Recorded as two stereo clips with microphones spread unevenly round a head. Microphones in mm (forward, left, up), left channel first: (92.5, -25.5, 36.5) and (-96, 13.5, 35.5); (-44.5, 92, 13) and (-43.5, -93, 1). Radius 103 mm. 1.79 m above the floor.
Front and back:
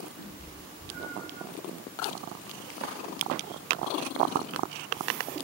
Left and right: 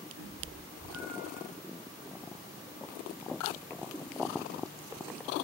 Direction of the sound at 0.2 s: 50° right.